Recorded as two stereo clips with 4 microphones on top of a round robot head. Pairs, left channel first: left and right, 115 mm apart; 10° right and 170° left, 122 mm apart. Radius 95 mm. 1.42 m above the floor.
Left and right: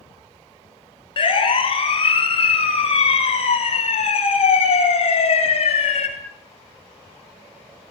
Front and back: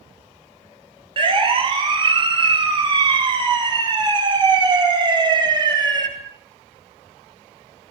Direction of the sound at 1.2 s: 130° left.